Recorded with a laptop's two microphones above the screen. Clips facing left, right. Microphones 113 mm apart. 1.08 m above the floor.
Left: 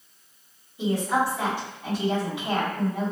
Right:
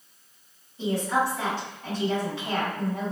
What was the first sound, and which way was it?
A woman speaking, 15° left (ahead or behind).